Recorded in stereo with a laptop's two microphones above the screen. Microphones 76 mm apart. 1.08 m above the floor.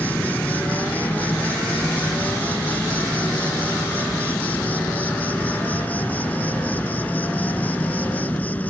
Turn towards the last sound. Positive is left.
turn(degrees=20)  # may be behind; listen again after turning